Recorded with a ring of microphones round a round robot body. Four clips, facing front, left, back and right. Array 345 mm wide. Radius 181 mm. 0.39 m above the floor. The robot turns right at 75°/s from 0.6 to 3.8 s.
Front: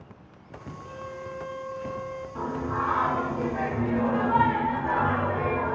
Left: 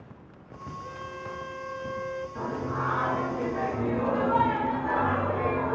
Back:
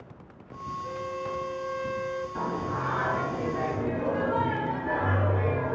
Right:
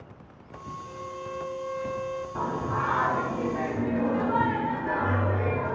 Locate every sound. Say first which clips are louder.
0.8 s a violin: right 1 dB, back 4 dB; 95° left, 1.2 m; by 2.2 s 160° right, 1.2 m
2.4 s singing: right 4 dB, front 5 dB; 100° right, 1.2 m; by 5.8 s 10° left, 1.2 m